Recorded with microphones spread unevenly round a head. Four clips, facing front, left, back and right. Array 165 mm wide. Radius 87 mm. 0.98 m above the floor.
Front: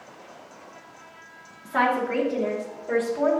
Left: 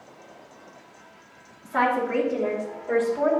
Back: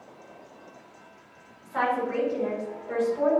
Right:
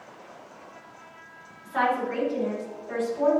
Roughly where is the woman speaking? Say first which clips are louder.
Left 2 dB, front 3 dB; ahead left.